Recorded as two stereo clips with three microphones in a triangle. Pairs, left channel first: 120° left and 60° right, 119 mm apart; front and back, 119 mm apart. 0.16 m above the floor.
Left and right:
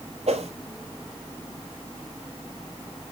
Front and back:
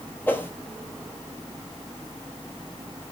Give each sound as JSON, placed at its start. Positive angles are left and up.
{"t": 0.3, "sound": "a whoosh", "azimuth_deg": -75, "distance_m": 1.3}